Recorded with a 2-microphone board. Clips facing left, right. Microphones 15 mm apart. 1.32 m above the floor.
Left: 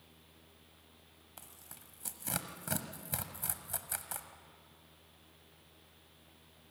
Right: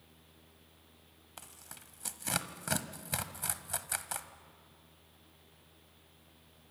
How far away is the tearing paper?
About 1.2 m.